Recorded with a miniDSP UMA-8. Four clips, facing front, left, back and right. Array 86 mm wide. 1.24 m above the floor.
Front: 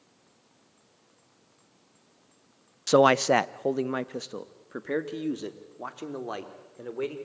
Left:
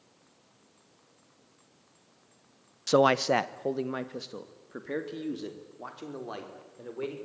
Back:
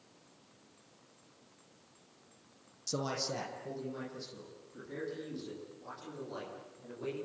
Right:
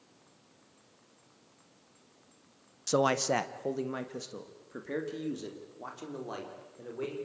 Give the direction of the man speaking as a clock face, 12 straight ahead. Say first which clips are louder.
Left 5 dB, front 18 dB; 11 o'clock.